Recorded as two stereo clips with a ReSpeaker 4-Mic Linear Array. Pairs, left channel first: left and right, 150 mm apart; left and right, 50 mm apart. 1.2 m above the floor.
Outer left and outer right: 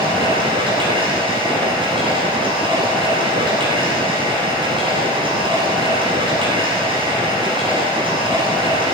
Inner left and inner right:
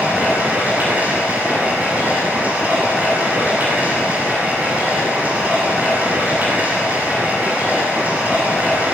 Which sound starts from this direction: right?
Running water, at 0.0 s.